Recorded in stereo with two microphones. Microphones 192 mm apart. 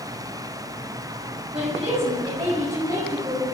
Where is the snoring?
I don't hear snoring.